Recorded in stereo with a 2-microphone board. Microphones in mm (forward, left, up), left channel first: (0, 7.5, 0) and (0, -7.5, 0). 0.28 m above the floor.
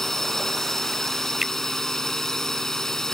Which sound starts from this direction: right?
A finger snap, at 1.4 s.